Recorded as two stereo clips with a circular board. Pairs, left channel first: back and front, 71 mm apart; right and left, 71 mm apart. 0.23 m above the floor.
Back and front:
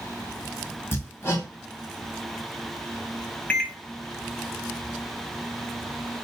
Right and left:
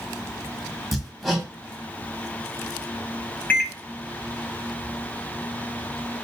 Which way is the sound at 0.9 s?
Straight behind.